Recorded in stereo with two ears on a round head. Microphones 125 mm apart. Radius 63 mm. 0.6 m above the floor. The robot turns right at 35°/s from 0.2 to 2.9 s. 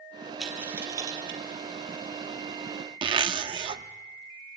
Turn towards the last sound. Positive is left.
turn(degrees=-35)  # may be behind; listen again after turning